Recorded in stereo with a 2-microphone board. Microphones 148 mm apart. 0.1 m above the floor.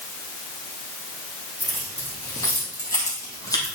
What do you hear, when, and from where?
1.6 s keys jangling: 20° left (ahead or behind), 3.5 m; by 3.8 s 25° left (ahead or behind), 2 m